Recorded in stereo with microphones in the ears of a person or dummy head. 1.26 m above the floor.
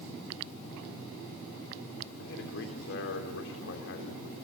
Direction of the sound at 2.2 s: 70° left (ahead or behind).